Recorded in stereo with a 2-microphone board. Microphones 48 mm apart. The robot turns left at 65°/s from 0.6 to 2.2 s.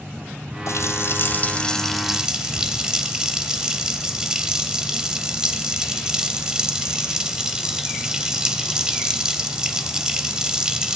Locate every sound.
0.7 s a running tap: 85° left, 2 m; by 11.0 s 15° right, 2 m